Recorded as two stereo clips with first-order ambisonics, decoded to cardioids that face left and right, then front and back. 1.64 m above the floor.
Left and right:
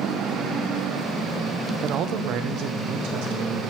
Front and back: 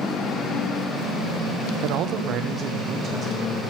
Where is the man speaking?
150° right, 0.8 m; by 3.6 s 105° right, 3 m.